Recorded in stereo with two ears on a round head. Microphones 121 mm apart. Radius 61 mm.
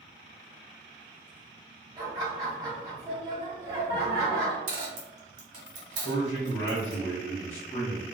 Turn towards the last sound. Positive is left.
turn(degrees=25)  # may be behind; listen again after turning